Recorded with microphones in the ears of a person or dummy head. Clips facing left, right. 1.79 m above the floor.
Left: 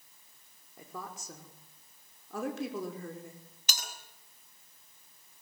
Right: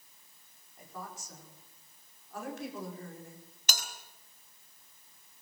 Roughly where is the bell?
Right.